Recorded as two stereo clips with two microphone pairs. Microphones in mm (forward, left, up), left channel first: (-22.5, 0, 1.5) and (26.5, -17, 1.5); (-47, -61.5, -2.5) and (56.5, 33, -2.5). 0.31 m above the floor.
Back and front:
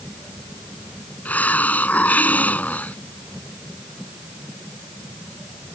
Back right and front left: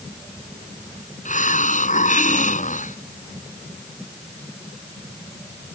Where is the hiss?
140° right.